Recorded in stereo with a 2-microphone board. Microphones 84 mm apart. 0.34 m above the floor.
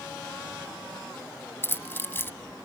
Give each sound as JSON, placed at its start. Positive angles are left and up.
{"t": 1.6, "sound": "keys jangling", "side_deg": 25}